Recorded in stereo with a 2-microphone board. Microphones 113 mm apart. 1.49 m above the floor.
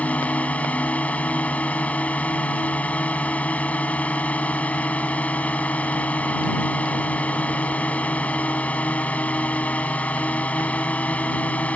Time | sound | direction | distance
0.0 | a drone | 10° left (ahead or behind) | ?